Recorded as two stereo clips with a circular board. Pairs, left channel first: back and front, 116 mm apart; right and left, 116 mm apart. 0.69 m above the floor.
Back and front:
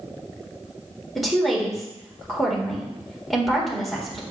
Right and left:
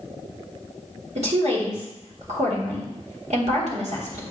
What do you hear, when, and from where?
1.1 s a woman speaking: 90° left, 1.9 m